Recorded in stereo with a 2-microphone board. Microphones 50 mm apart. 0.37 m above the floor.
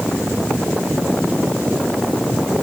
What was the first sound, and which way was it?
Only background noise.